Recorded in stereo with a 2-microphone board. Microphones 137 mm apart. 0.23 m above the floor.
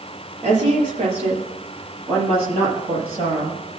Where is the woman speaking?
50° right (ahead or behind), 6 m; by 3.6 s 45° right (ahead or behind), 7.5 m.